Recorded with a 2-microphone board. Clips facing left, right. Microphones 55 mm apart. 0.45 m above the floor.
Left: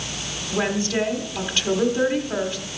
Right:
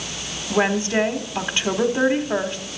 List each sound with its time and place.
0.5 s a woman speaking: 25° right (ahead or behind), 1.1 m